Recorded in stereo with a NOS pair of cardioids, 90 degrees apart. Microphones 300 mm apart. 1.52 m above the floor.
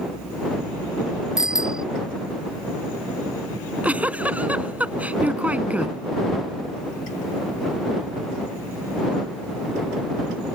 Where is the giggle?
5° right.